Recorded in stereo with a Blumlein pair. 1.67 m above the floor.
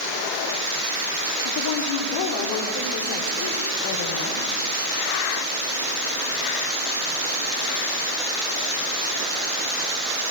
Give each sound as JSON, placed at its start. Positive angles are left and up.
{"t": 1.4, "sound": "a woman speaking", "azimuth_deg": 50, "distance_m": 4.5}